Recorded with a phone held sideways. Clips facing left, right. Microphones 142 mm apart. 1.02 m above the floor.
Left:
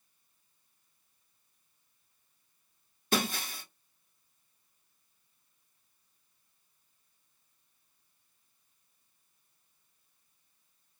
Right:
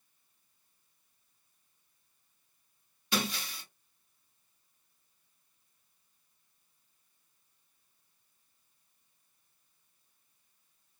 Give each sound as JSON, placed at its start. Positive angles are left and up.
{"t": 3.1, "sound": "breaking glass", "side_deg": 50, "distance_m": 0.7}